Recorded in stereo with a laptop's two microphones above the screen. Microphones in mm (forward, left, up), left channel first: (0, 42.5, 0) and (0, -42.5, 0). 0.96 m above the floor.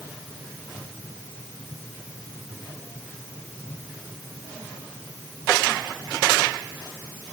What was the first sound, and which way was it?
Only background noise.